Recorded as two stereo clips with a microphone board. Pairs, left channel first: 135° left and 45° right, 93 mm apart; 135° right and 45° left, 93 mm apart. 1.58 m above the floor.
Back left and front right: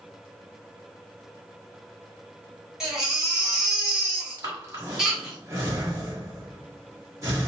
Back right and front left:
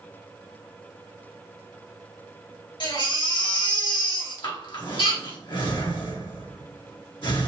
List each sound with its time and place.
2.8 s a baby crying: 130° right, 1.7 m
4.4 s breathing: 100° right, 1.5 m